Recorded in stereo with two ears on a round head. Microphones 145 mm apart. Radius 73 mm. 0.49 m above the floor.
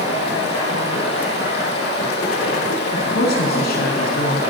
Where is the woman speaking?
70° left (ahead or behind), 5.5 m.